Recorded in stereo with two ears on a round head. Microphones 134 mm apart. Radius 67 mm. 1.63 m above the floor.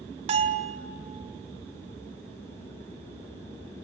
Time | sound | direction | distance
0.3 | a bell | 45° right (ahead or behind) | 2 m